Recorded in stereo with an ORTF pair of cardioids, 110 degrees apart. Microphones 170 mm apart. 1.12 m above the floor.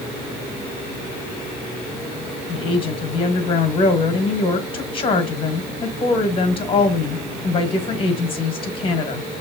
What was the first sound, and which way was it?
A woman speaking, 30° left.